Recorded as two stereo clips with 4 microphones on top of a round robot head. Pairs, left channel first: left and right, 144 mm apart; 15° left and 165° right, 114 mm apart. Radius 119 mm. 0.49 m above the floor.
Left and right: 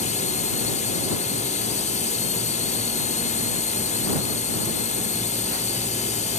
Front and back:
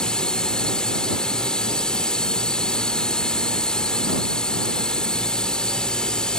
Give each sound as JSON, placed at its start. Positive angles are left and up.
{"t": 0.0, "sound": "a drone", "azimuth_deg": 95}